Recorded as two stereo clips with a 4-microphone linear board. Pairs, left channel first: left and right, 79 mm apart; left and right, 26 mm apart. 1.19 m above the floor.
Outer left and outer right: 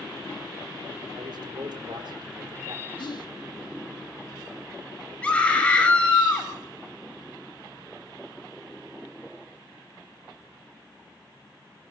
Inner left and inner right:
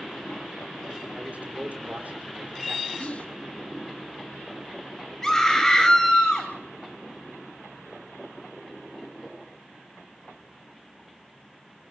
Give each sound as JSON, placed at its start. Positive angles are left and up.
{"t": 1.1, "sound": "a man speaking", "side_deg": -85, "distance_m": 4.5}
{"t": 3.0, "sound": "whispering", "side_deg": 70, "distance_m": 1.7}
{"t": 5.2, "sound": "a scream", "side_deg": 15, "distance_m": 7.0}